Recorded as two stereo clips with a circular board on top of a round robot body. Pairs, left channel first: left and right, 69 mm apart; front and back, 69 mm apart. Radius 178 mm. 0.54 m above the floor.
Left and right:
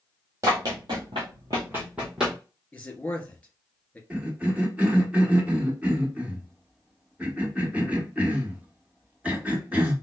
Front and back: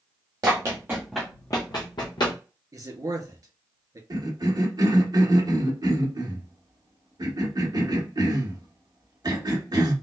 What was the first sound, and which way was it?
Running footsteps, 140° right.